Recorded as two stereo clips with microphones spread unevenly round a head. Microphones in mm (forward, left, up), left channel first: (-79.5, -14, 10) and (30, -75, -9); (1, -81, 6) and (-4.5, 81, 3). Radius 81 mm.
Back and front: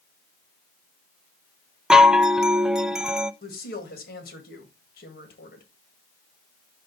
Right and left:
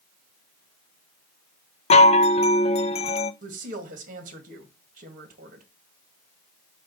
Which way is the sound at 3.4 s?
135° left.